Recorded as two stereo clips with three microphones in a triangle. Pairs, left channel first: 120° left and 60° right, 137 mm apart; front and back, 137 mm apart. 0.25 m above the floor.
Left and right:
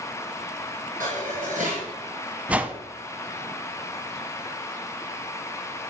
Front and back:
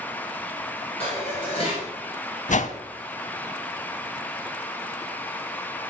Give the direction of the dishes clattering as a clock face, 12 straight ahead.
1 o'clock.